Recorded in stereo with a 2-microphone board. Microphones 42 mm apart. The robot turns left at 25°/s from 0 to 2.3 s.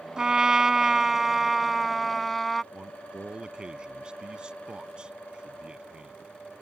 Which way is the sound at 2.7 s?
25° right (ahead or behind).